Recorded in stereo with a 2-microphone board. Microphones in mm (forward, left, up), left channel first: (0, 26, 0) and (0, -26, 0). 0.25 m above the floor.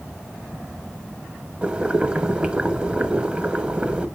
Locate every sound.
1.6 s boiling: 20° right (ahead or behind), 0.9 m